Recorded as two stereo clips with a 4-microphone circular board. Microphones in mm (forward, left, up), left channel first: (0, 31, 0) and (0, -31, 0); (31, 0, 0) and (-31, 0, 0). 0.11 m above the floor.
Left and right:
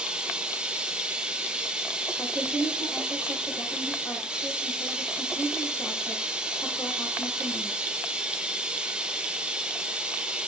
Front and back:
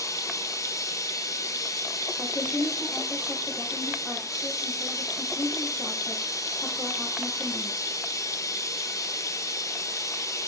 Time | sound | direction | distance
0.0 | running water | 15° right | 0.9 m
2.2 | a woman speaking | 65° left | 3.5 m